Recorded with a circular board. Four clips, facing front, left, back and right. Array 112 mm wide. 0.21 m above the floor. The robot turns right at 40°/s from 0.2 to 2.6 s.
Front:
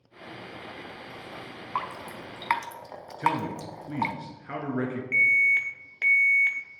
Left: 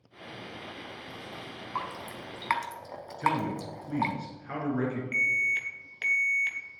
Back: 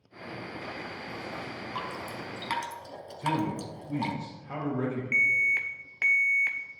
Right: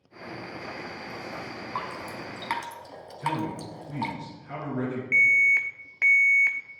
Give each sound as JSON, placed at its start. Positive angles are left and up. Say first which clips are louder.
{"t": 1.8, "sound": "dripping", "louder": "right 1 dB, front 5 dB", "azimuth_deg": -5, "distance_m": 0.9}
{"t": 3.2, "sound": "a man speaking", "louder": "left 1 dB, front 2 dB", "azimuth_deg": 20, "distance_m": 2.5}
{"t": 5.1, "sound": "an alarm", "louder": "right 7 dB, front 3 dB", "azimuth_deg": -110, "distance_m": 0.8}